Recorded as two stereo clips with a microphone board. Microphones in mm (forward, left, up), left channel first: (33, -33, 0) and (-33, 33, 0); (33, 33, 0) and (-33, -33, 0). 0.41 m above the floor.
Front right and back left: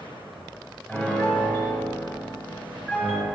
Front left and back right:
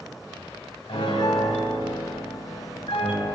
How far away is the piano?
About 0.9 m.